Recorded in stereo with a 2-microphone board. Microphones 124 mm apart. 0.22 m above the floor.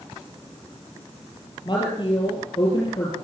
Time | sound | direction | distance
1.6 | a woman speaking | 40° left (ahead or behind) | 5 m